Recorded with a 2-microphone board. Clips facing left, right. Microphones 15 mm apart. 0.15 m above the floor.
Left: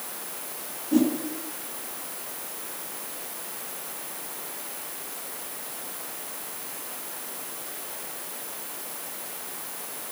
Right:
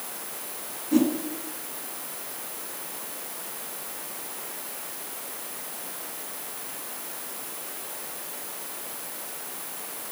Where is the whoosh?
20° right (ahead or behind), 1.2 m.